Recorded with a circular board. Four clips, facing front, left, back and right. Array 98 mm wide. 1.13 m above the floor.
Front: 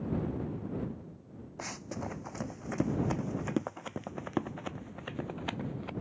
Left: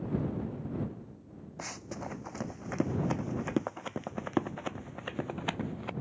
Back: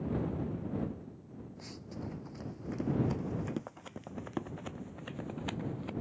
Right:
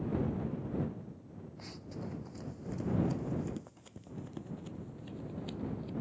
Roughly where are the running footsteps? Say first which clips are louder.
Left 5 dB, front 6 dB; ahead left.